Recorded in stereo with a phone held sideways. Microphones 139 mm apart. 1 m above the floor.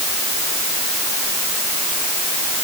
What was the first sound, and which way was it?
Only background noise.